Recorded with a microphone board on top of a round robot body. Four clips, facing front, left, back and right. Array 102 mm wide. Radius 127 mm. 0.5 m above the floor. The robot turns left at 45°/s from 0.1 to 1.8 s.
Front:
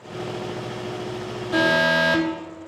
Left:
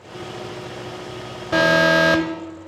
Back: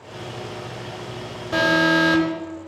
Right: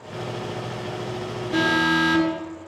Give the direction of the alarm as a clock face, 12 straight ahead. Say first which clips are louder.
Left 5 dB, back 1 dB; 9 o'clock.